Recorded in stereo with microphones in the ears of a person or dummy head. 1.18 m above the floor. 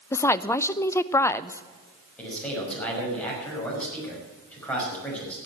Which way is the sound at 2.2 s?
Centre (ahead or behind).